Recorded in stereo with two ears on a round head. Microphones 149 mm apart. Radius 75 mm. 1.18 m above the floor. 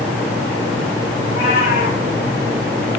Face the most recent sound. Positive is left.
turn(degrees=50)  # may be behind; listen again after turning